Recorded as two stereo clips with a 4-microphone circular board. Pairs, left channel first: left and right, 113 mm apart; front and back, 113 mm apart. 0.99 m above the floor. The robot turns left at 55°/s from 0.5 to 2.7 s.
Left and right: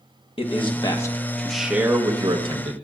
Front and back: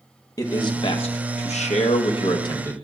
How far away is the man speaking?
About 1.1 m.